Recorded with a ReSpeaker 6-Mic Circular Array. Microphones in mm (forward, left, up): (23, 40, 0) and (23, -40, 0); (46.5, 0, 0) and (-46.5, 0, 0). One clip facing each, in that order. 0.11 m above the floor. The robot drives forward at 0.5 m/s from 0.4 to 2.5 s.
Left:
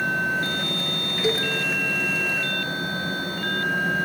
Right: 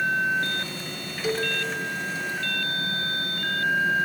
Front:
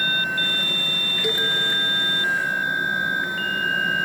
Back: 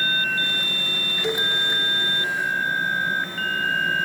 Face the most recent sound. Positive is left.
turn(degrees=155)